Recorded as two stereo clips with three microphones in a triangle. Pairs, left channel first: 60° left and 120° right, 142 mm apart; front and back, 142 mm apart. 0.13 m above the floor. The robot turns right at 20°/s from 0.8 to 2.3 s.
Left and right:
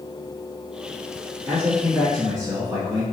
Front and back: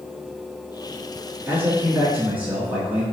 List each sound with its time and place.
1.4 s a man speaking: 145° right, 1.5 m; by 3.0 s 130° right, 1.5 m